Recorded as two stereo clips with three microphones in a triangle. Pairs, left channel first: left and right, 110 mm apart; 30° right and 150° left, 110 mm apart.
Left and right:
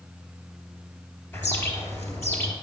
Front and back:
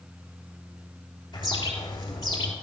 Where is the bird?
20° left, 2.5 m.